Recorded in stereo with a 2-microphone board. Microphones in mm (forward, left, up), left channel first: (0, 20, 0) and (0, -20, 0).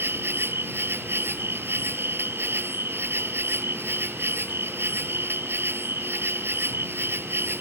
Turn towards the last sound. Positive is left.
turn(degrees=-75)  # may be behind; listen again after turning